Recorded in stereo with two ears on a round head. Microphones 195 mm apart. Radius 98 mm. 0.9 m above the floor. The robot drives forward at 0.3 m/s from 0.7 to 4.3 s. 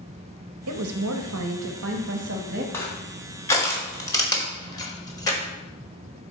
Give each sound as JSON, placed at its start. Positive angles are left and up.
{"t": 0.7, "sound": "a woman speaking", "side_deg": -75, "distance_m": 0.8}
{"t": 2.7, "sound": "crushing", "side_deg": 10, "distance_m": 1.4}